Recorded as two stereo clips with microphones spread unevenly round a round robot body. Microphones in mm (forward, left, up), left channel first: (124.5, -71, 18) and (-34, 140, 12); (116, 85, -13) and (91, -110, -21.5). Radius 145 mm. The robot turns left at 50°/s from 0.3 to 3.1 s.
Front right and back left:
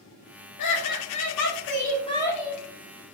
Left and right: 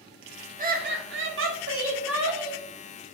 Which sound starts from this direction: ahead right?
Laughter, at 0.6 s.